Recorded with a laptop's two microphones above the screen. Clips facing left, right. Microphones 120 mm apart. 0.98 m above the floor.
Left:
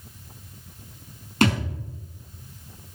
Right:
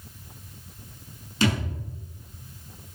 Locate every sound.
1.4 s a thud: 55° left (ahead or behind), 5.5 m